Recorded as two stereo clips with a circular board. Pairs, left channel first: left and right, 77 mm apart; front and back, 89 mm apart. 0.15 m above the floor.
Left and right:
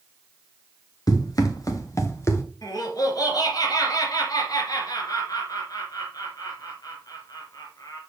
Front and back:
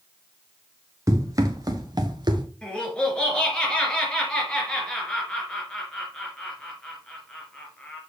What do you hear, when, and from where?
1.1 s running footsteps: 125° left, 2 m; by 2.4 s 145° left, 1.6 m
2.6 s laughter: 75° left, 3 m